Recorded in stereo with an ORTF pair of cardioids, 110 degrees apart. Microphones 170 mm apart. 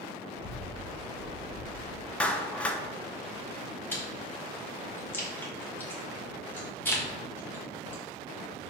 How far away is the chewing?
About 2.5 m.